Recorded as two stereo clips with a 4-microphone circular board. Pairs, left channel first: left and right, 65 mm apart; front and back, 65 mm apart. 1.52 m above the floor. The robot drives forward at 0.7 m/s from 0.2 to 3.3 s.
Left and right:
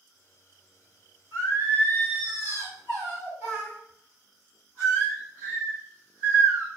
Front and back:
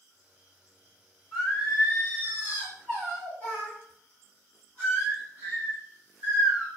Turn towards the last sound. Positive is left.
turn(degrees=-140)